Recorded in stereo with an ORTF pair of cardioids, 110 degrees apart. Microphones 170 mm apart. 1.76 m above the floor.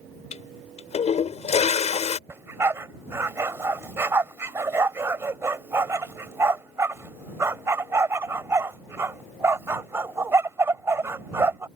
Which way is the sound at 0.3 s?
45° left.